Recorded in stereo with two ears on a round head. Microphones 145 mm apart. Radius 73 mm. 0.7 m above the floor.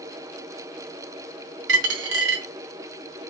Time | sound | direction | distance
1.7 | a dropped coin | 75° right (ahead or behind) | 0.6 m